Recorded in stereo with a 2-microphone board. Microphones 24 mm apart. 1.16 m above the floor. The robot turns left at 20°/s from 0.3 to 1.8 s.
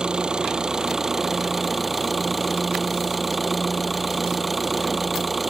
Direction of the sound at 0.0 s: 150° right.